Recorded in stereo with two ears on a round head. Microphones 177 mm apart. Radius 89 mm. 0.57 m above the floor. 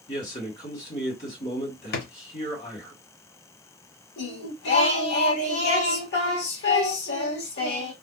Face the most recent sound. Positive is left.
turn(degrees=55)  # may be behind; listen again after turning